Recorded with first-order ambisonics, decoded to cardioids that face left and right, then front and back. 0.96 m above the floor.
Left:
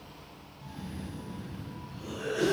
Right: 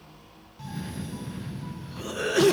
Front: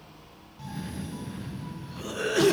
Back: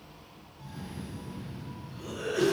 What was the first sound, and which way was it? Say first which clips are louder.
A cough: right 6 dB, front 5 dB; 55° right.